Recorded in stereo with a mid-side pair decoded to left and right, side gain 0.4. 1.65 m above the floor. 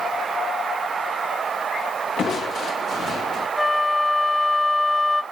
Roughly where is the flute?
Ahead.